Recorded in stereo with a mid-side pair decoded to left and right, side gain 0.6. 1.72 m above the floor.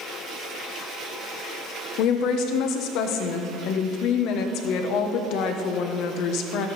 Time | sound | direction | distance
2.0 | a woman speaking | 70° left | 1.2 m